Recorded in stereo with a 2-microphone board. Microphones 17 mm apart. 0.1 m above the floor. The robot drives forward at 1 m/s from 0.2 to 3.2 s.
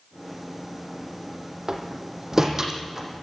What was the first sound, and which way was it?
A door slam, 25° right (ahead or behind).